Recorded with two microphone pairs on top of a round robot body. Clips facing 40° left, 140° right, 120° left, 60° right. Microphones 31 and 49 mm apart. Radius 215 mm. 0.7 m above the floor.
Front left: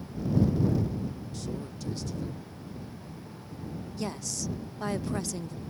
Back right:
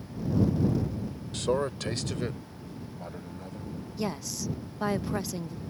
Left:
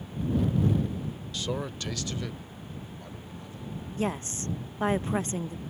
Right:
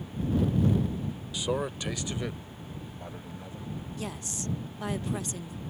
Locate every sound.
1.3 s a man speaking: 140° right; by 3.8 s 125° right
4.0 s a woman speaking: 160° left